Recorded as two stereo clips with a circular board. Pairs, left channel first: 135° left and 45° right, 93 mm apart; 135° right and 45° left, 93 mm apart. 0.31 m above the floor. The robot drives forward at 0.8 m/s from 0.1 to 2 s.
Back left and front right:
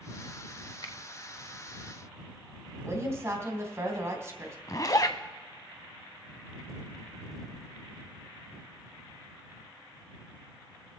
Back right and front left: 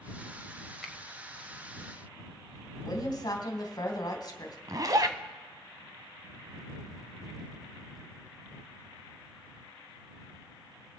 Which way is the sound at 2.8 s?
100° right.